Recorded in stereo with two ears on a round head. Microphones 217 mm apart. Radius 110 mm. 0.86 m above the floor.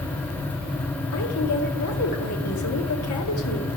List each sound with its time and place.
1.1 s a woman speaking: 70° left (ahead or behind), 2.0 m